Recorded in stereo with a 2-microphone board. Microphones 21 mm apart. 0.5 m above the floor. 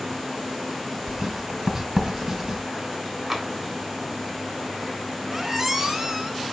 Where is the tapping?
5° right (ahead or behind), 1.4 m.